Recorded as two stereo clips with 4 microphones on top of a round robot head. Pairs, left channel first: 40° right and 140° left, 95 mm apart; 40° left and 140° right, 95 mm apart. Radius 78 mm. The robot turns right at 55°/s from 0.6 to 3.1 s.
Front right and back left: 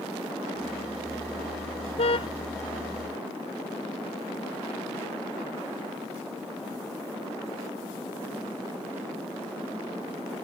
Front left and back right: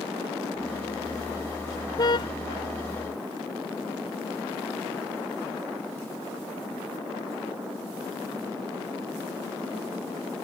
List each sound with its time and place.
2.0 s a car horn: 15° right; by 2.3 s 5° left